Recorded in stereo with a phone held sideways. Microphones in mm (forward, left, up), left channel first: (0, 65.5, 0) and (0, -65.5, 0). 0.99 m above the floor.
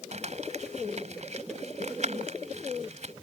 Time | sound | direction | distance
0.1 | crumpling | 65° right (ahead or behind) | ?